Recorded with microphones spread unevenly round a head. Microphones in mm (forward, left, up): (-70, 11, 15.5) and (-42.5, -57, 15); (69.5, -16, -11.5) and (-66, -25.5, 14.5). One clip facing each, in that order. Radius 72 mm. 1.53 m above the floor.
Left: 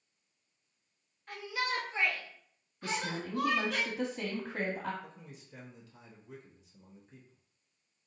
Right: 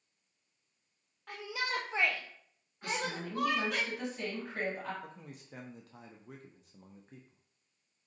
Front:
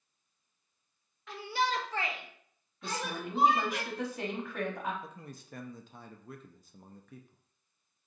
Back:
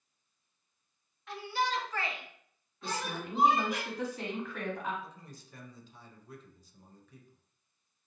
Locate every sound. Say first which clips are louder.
1.3 s a shout: left 1 dB, front 1 dB; 10° right, 1.0 m; by 3.8 s 135° right, 2.5 m
2.8 s a woman speaking: even, even; 80° left, 1.0 m
5.0 s a man speaking: right 2 dB, front 3 dB; 20° right, 0.5 m